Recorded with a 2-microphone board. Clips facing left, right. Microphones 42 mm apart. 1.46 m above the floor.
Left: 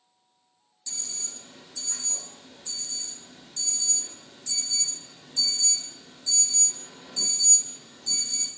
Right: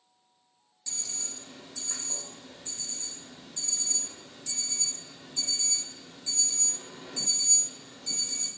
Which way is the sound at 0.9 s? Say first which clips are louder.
Left 1 dB; 30° right (ahead or behind).